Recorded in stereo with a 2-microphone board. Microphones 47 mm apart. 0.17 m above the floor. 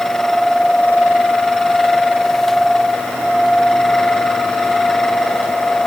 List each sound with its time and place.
Only background noise.